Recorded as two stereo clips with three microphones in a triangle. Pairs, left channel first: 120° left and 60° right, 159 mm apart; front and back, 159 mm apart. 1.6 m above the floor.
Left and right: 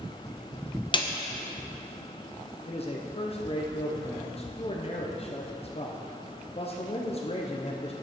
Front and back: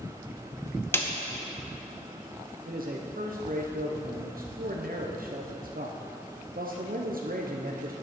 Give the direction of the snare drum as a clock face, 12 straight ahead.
10 o'clock.